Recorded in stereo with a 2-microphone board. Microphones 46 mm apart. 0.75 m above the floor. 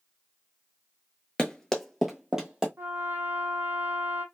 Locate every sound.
1.4 s running footsteps: 20° left (ahead or behind), 0.7 m; by 2.7 s 15° right (ahead or behind), 1.4 m
2.8 s a trumpet: 50° right (ahead or behind), 0.8 m